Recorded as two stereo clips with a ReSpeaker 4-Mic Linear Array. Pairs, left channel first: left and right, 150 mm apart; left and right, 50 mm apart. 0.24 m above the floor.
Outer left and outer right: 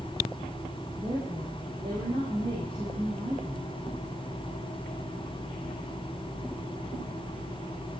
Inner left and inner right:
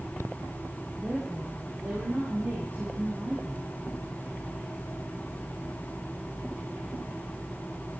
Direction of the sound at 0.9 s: 40° right (ahead or behind).